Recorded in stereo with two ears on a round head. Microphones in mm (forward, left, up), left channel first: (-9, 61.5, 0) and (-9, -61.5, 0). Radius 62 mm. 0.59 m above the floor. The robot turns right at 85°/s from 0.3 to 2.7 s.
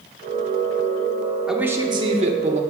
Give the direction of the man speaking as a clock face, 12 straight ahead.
6 o'clock.